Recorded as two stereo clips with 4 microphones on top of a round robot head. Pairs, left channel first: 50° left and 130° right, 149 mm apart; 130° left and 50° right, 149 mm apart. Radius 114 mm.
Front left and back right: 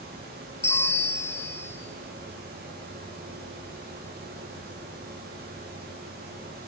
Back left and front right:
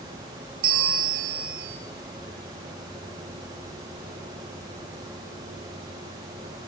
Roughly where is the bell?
Ahead right.